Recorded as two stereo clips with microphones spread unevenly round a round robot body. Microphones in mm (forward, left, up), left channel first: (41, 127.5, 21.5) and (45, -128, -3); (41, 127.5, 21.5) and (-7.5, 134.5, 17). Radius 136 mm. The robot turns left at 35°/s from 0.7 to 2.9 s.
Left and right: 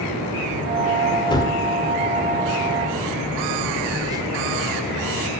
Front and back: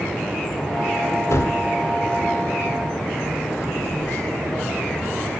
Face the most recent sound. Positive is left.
turn(degrees=-15)